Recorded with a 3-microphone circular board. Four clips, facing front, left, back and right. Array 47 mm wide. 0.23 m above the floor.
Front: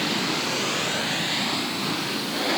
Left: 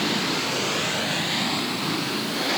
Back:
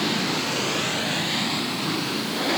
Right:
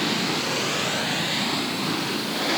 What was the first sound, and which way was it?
Only background noise.